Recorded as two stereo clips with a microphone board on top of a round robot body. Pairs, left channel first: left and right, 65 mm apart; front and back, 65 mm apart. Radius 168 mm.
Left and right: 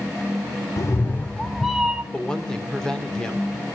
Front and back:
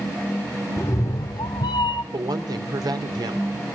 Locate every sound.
0.8 s a cat meowing: 55° left, 0.7 m; by 2.0 s 15° right, 1.2 m
2.1 s a woman speaking: 170° left, 3 m